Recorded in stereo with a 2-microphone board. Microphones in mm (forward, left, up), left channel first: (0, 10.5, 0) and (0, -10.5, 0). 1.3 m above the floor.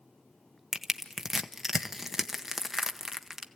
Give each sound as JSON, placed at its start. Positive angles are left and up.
{"t": 0.7, "sound": "crushing", "side_deg": -15, "distance_m": 1.0}